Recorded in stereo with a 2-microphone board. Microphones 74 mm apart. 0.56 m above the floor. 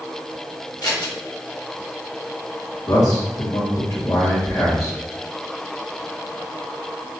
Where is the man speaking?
55° left (ahead or behind), 2 m.